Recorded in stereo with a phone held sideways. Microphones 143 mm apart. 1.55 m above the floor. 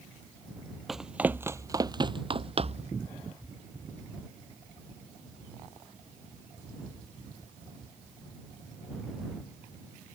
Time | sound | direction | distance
0.9 | running footsteps | centre (ahead or behind) | ?